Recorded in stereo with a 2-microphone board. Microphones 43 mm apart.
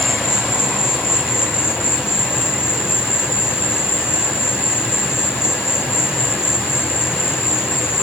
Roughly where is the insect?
Left.